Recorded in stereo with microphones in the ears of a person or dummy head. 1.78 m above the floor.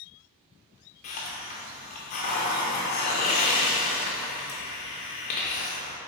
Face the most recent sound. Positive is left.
turn(degrees=35)  # may be behind; listen again after turning